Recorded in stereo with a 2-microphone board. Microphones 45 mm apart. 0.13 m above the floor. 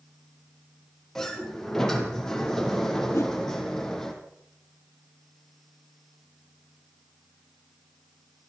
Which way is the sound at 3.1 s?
75° left (ahead or behind).